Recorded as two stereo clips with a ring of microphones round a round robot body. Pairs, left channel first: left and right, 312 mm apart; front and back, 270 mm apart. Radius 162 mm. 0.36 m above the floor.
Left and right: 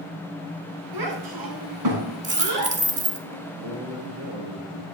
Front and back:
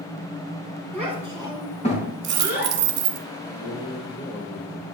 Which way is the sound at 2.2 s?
155° right.